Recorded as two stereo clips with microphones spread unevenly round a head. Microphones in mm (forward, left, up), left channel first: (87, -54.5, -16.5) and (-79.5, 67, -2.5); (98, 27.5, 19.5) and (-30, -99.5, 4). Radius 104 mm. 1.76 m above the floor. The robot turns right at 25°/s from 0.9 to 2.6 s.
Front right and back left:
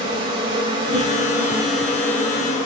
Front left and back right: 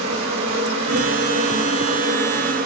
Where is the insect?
150° right, 4 m; by 2.7 s 105° right, 4 m.